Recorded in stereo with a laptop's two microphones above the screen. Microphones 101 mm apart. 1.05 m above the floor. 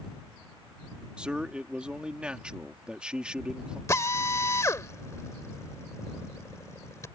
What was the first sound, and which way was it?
A man speaking, 10° right (ahead or behind).